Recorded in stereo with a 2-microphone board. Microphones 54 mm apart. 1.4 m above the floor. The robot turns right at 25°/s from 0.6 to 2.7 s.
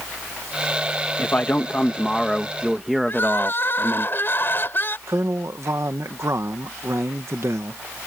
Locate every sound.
1.2 s a man speaking: 145° left; by 4.1 s 175° right
3.1 s crying: 45° left (ahead or behind)
5.1 s a man speaking: 60° right (ahead or behind)